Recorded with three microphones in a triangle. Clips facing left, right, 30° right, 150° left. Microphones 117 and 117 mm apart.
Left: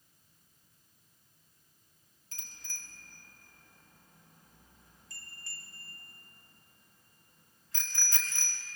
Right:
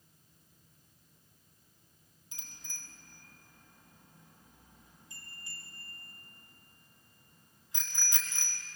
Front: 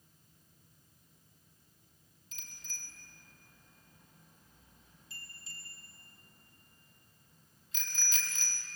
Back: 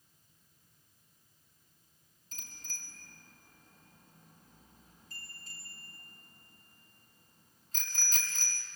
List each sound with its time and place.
2.3 s a bicycle bell: 165° right, 5 m